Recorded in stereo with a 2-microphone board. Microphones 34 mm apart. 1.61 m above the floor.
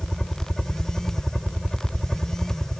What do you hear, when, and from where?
0.0 s a helicopter: 10° left (ahead or behind)